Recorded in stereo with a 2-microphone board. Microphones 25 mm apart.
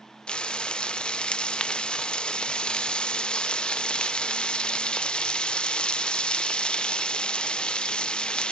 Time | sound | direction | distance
0.3 | frying | 40° left (ahead or behind) | 0.5 m